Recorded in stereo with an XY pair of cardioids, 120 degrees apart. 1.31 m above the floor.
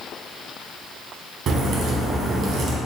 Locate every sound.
1.5 s a crack: 60° right, 0.8 m